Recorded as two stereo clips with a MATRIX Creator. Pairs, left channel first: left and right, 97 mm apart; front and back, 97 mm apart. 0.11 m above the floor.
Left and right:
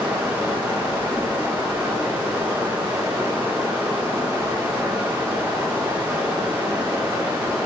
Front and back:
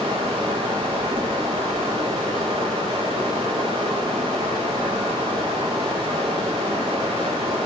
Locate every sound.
0.0 s running water: 160° right, 1.3 m